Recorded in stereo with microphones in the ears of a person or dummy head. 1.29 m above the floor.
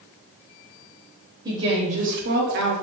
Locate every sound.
1.4 s a woman speaking: 20° right (ahead or behind), 0.7 m; by 2.7 s 60° right (ahead or behind), 0.6 m